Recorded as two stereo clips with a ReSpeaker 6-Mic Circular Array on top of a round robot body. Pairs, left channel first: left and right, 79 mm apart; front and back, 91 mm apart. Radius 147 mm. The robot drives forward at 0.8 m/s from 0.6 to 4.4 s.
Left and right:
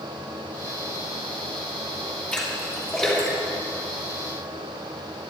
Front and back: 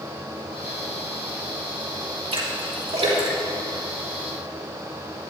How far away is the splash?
About 3.5 m.